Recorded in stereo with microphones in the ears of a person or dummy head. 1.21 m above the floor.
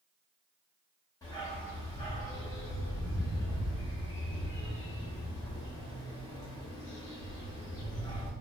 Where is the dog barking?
25° left (ahead or behind), 0.7 m.